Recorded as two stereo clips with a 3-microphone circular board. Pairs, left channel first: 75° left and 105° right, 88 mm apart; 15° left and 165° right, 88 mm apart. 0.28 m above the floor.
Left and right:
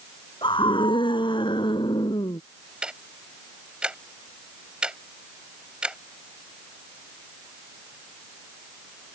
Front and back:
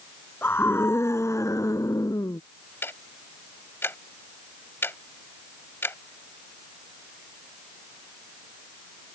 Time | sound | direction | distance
0.4 | a scream | 80° left | ?
2.8 | ticking | 30° right | ?